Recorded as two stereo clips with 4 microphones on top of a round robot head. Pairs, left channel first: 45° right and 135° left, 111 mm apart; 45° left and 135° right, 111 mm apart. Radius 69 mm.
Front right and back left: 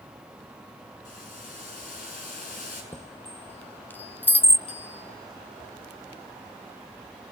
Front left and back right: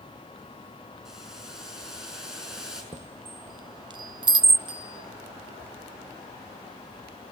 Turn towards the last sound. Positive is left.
turn(degrees=-85)